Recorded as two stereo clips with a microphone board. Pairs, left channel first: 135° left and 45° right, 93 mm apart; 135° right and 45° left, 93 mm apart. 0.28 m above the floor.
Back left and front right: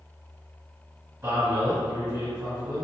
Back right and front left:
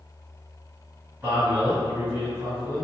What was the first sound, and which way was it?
A man speaking, 15° right.